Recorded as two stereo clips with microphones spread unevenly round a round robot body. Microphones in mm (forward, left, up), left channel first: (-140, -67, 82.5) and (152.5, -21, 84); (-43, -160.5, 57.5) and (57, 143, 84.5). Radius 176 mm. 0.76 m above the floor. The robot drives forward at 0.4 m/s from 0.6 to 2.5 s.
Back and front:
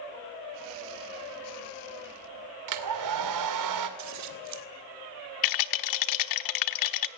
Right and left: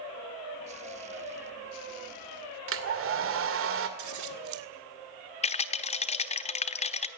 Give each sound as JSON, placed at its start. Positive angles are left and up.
{"t": 2.7, "sound": "a hair dryer", "azimuth_deg": 20, "distance_m": 2.0}
{"t": 4.0, "sound": "scissors", "azimuth_deg": 40, "distance_m": 1.8}
{"t": 5.4, "sound": "a rattle", "azimuth_deg": 180, "distance_m": 1.1}